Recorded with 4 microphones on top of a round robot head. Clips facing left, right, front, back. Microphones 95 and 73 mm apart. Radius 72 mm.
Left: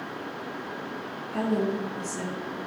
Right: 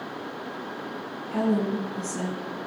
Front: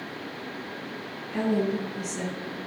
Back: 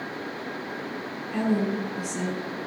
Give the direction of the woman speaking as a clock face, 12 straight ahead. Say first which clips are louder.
Right 2 dB, even; 4 o'clock.